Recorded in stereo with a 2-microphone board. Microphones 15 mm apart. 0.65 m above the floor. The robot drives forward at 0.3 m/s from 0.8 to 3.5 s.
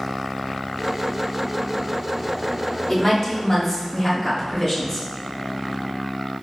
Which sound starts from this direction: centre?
A woman speaking, at 2.9 s.